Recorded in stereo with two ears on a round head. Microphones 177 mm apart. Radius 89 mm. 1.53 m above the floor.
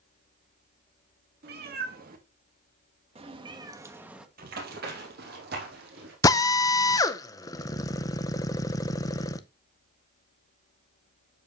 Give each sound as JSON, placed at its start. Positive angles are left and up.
{"t": 1.4, "sound": "a cat meowing", "side_deg": -60, "distance_m": 1.9}
{"t": 4.4, "sound": "running footsteps", "side_deg": -55, "distance_m": 2.5}
{"t": 6.2, "sound": "a drill", "side_deg": 20, "distance_m": 0.6}